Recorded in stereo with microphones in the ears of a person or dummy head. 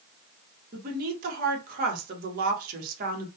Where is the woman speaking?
50° right (ahead or behind), 0.9 m.